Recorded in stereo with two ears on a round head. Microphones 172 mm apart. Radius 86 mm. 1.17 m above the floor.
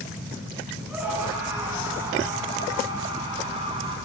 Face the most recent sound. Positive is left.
turn(degrees=-30)  # may be behind; listen again after turning